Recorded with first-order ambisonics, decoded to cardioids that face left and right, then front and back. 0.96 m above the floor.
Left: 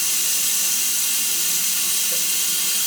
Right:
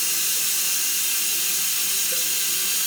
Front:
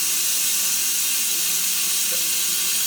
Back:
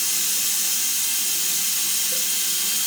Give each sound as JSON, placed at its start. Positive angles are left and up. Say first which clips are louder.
{"t": 0.0, "sound": "running water", "louder": "left 2 dB, front 1 dB", "azimuth_deg": 70, "distance_m": 1.6}